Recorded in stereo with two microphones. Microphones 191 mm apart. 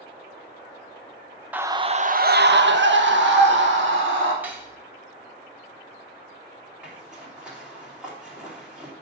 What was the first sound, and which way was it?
A scream, 10° right (ahead or behind).